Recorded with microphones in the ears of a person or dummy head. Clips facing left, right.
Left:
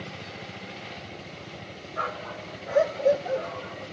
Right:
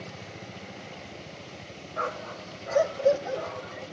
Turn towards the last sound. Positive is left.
turn(degrees=-55)  # may be behind; listen again after turning